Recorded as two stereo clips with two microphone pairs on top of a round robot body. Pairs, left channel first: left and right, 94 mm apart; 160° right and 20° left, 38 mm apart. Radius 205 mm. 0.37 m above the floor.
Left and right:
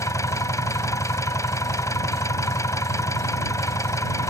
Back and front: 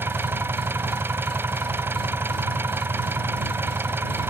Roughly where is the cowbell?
No cowbell in this recording.